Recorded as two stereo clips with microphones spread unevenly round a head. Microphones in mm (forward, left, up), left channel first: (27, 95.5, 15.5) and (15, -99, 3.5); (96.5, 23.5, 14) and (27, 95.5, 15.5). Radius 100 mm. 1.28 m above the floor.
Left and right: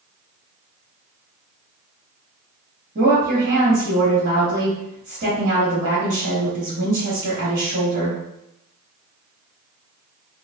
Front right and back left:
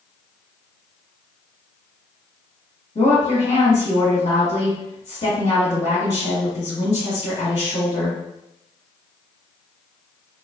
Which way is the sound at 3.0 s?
55° right.